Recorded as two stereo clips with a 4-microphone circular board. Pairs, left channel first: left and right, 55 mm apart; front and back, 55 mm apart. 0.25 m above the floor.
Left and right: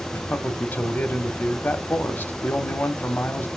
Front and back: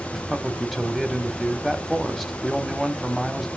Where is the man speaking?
90° left, 1.2 m.